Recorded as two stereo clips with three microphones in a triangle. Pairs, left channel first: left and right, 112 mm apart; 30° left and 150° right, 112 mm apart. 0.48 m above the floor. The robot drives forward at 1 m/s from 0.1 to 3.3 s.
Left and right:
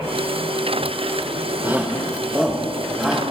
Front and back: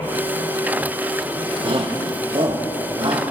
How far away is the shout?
About 1.3 m.